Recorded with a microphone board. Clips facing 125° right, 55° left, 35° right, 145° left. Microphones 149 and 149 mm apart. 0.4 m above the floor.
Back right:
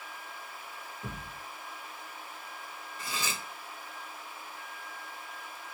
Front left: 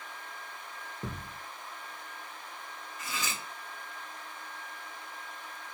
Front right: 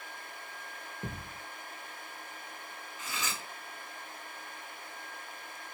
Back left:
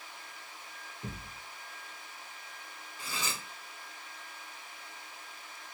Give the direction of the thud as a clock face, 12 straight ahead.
11 o'clock.